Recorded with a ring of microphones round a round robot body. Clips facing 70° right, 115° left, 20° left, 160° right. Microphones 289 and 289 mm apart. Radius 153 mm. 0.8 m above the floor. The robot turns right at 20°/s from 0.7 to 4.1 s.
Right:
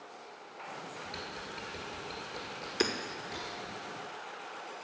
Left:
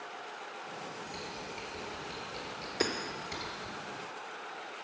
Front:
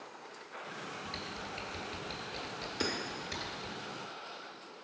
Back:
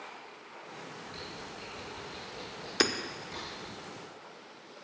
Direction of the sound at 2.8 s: 135° right.